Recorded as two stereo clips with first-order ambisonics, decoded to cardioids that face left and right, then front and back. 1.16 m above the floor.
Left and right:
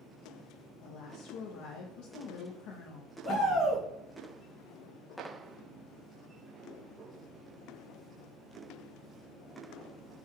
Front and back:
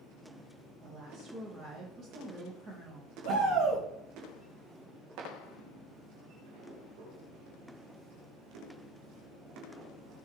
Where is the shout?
165° right, 0.7 m.